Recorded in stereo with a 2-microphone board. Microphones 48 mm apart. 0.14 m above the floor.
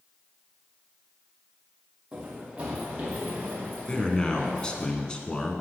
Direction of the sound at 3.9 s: 20° left (ahead or behind).